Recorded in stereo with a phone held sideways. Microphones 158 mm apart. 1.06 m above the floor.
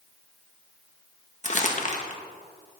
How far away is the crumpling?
About 1.3 m.